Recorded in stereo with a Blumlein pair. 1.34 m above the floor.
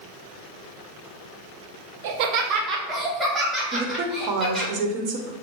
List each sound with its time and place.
2.0 s laughter: 50° right, 0.9 m; by 4.7 s straight ahead, 3.5 m
3.7 s a woman speaking: 40° right, 1.0 m